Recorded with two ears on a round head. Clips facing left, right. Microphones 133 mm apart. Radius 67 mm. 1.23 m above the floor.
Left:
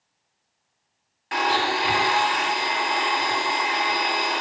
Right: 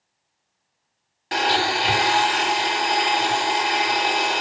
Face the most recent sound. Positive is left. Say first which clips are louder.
# right 1 dB
turn(degrees=-40)  # may be behind; listen again after turning